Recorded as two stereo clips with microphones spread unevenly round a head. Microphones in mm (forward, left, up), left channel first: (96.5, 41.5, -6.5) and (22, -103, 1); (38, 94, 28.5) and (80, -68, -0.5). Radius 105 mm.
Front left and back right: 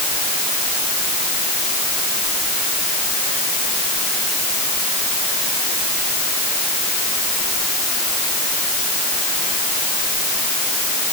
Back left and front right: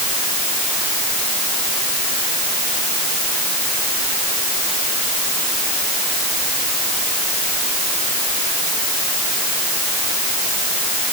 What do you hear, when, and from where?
Only background noise.